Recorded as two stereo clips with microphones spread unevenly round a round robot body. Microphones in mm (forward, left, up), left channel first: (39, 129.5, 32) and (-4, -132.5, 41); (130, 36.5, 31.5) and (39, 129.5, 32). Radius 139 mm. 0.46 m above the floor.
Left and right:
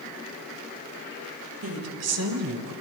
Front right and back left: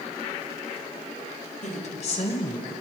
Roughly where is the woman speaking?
Right.